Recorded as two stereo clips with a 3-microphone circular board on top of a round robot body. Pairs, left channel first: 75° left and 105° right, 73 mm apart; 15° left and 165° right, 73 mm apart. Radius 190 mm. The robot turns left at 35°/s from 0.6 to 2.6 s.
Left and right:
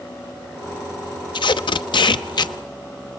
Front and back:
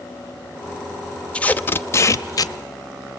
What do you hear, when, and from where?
1.3 s tape being pulled: 90° left, 0.9 m; by 2.5 s 50° left, 0.9 m